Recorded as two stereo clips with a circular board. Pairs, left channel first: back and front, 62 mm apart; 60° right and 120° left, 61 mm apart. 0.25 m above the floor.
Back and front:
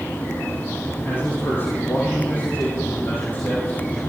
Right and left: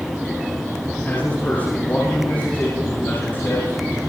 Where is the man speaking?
125° right, 9 m; by 4.0 s 120° right, 13 m.